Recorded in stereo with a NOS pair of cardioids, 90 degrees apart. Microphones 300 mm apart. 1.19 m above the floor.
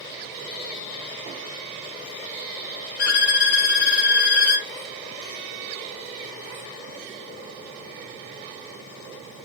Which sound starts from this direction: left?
A violin, at 3.0 s.